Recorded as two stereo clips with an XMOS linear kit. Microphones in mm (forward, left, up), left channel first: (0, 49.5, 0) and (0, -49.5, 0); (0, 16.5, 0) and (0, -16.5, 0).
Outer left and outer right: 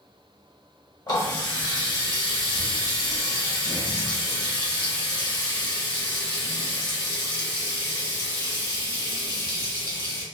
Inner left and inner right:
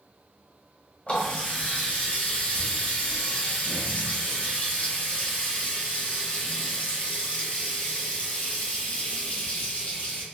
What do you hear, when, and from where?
1.1 s a running tap: 50° left (ahead or behind), 1.2 m